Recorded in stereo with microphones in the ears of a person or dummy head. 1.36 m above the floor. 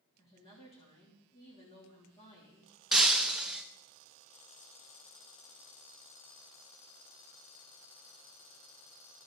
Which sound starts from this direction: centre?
Breaking glass, at 2.9 s.